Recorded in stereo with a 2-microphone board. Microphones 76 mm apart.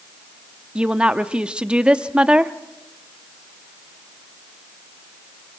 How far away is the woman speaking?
About 0.8 m.